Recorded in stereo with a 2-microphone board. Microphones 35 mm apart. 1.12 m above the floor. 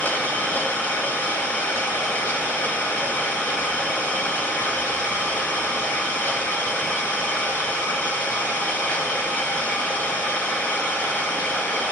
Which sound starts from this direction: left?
An engine running, at 0.0 s.